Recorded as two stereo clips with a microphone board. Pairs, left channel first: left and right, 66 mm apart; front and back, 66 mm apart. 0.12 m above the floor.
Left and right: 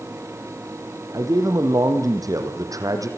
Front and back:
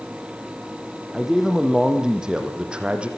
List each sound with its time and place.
1.1 s a man speaking: 95° right, 4.5 m; by 3.1 s 110° right, 4 m